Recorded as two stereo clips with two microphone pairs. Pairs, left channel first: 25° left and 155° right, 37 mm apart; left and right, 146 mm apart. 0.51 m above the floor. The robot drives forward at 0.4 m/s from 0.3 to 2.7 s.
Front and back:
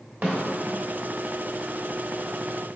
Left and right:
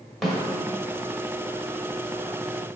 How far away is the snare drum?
About 1.1 m.